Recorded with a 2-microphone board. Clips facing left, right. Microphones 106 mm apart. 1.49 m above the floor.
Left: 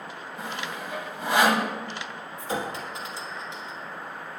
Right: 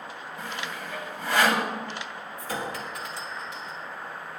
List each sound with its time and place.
0.4 s sawing: 20° left (ahead or behind), 1.3 m
2.4 s a clink: 20° left (ahead or behind), 1.7 m